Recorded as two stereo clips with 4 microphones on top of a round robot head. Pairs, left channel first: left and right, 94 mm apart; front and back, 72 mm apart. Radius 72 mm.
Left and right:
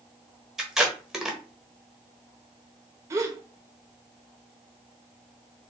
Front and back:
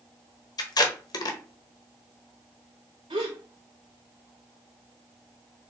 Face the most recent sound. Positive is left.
turn(degrees=-140)